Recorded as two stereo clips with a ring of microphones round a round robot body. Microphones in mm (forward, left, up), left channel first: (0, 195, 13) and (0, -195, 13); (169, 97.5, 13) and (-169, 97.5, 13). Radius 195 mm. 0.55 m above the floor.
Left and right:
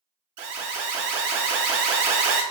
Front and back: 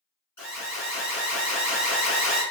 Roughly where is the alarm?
Right.